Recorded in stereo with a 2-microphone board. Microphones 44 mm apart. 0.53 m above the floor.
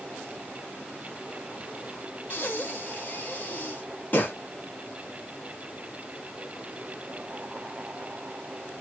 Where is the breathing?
45° left (ahead or behind), 0.8 m.